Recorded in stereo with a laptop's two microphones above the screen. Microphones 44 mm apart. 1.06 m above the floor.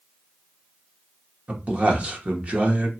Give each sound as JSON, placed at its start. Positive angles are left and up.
{"t": 1.5, "sound": "a man speaking", "side_deg": -30, "distance_m": 0.9}